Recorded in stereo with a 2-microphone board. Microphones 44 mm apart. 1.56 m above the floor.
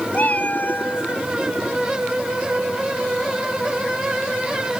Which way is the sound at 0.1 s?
40° left (ahead or behind).